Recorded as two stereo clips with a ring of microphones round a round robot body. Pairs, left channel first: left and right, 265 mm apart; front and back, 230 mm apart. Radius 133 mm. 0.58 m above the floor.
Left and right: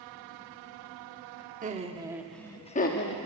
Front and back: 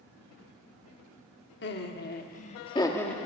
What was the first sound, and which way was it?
Laughter, 35° right.